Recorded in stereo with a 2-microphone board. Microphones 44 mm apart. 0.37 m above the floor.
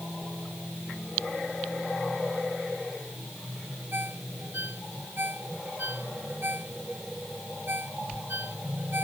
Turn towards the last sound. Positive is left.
turn(degrees=-50)  # may be behind; listen again after turning